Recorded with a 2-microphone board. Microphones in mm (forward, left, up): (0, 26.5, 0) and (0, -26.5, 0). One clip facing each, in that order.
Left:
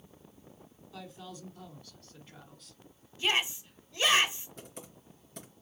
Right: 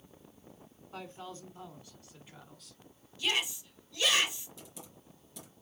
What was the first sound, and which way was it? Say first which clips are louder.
A man speaking: right 2 dB; 45° right (ahead or behind).